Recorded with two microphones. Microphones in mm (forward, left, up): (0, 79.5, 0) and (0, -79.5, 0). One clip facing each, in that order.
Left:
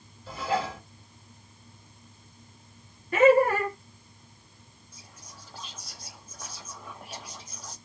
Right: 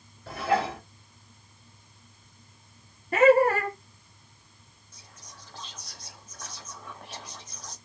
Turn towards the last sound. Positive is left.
turn(degrees=10)  # may be behind; listen again after turning